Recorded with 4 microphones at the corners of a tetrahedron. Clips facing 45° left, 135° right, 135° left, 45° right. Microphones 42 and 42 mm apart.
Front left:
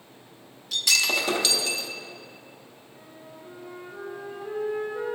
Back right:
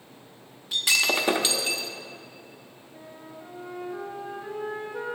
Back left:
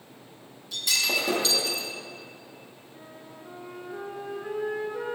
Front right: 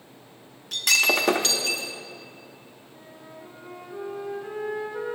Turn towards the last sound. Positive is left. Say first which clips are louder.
# back right 3 dB, front right 1 dB
turn(degrees=-135)